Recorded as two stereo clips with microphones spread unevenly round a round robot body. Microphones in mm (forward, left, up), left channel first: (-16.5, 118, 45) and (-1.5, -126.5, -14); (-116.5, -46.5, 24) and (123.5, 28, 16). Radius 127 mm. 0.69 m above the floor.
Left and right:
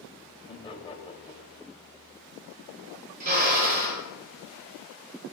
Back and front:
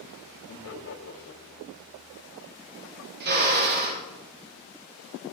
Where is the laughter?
165° left, 2.5 m.